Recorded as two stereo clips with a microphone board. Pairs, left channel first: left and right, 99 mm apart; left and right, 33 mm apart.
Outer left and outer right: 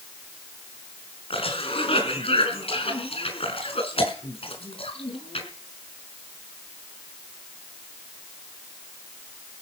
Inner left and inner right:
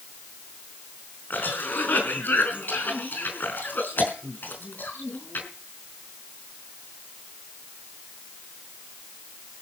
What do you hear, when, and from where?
1.3 s a cough: 70° left (ahead or behind), 4.5 m